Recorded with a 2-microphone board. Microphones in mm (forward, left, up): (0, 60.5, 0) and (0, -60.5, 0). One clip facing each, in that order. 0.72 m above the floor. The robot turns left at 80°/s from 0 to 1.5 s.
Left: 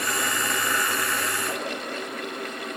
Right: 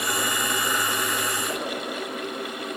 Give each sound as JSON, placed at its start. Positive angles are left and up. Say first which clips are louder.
{"t": 1.5, "sound": "a whoosh", "louder": "right 1 dB", "side_deg": 45, "distance_m": 2.5}